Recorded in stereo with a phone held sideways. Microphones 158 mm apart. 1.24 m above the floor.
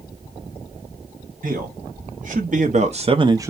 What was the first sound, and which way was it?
A man speaking, 60° right (ahead or behind).